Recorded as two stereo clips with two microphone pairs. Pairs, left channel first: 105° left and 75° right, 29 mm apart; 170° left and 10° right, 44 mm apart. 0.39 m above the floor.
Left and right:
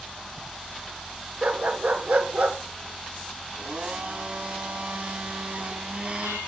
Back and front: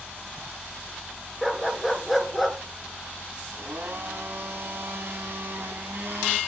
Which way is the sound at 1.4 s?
100° right.